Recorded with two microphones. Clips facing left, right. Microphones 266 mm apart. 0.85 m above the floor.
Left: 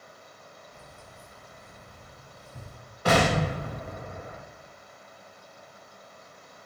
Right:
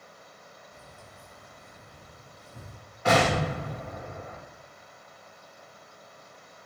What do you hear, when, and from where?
0.7 s keys jangling: 20° left (ahead or behind), 4 m; by 2.8 s 60° left (ahead or behind), 3.5 m
3.0 s an explosion: 40° left (ahead or behind), 3.5 m